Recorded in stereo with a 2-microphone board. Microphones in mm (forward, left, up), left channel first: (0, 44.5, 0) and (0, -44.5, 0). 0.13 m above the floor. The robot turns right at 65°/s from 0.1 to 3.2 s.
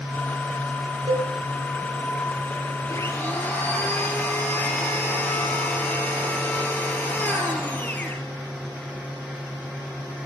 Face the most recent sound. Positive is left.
turn(degrees=20)  # may be behind; listen again after turning